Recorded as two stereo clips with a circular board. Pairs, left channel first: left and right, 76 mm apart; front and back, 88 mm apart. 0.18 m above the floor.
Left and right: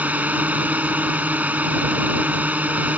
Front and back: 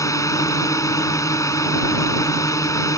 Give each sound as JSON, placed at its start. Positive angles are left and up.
{"t": 0.0, "sound": "a drone", "azimuth_deg": -30}